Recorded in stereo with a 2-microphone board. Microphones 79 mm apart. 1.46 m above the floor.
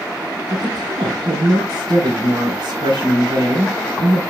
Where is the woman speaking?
85° right, 3.5 m.